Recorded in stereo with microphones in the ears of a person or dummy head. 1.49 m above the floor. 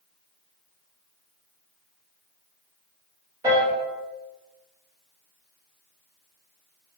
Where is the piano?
15° right (ahead or behind), 3.5 m.